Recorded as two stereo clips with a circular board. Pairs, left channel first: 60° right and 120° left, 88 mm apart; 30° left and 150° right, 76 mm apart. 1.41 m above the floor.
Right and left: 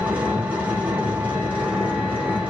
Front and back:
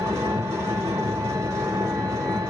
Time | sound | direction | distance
0.0 | an engine running | 170° right | 1.2 m